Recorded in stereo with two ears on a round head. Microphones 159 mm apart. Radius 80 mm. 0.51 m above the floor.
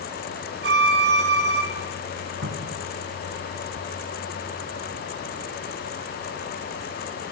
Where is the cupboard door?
80° right, 4 m.